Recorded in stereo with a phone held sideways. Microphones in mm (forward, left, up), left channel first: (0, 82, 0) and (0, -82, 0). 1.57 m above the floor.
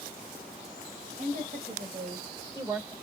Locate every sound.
1.2 s a woman speaking: 50° right (ahead or behind), 2.0 m; by 2.9 s 20° right (ahead or behind), 2.5 m